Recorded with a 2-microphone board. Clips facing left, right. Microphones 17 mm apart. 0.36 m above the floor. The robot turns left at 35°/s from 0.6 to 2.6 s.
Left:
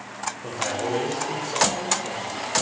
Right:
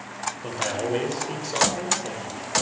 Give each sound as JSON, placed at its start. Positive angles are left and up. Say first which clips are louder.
{"t": 0.4, "sound": "a man speaking", "louder": "even", "side_deg": -15, "distance_m": 1.2}